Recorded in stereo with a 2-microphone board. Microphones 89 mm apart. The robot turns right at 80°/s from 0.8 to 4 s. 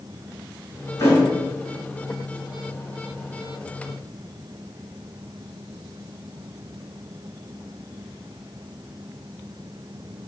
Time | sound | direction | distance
1.0 | a thud | 40° left (ahead or behind) | 1.3 m